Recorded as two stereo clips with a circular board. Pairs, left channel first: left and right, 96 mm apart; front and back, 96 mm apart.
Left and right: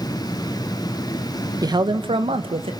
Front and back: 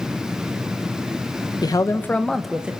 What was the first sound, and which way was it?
A man speaking, 45° right.